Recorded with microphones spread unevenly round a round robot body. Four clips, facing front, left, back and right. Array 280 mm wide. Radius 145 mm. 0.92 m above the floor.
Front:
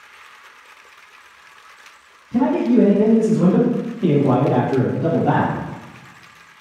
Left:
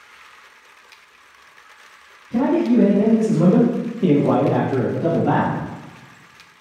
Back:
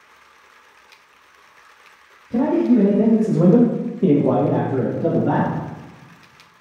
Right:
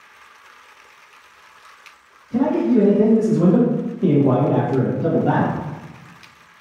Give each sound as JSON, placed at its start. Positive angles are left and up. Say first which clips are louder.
{"t": 2.3, "sound": "a man speaking", "louder": "even, even", "azimuth_deg": 175, "distance_m": 1.5}